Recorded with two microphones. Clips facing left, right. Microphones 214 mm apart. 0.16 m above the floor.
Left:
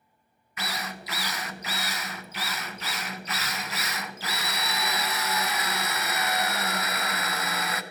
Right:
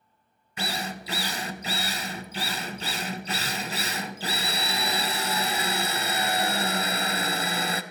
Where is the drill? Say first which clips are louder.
Right 3 dB; 30° right (ahead or behind), 0.6 m.